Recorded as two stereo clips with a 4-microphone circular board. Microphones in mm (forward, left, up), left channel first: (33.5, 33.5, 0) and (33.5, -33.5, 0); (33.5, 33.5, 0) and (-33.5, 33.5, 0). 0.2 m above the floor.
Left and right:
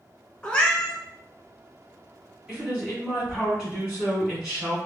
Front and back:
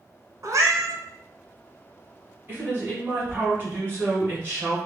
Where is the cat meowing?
165° left, 0.7 m.